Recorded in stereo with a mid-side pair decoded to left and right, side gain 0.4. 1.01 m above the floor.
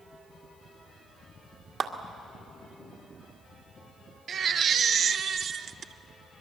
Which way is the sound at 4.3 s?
60° right.